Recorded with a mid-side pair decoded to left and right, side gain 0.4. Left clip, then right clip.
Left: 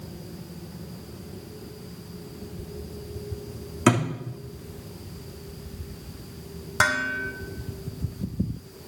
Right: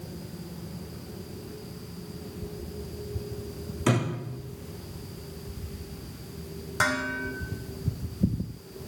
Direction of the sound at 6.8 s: 45° left.